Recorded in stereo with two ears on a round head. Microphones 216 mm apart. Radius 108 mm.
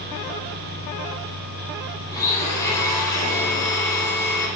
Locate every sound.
2.1 s a blender: 15° left (ahead or behind), 2.0 m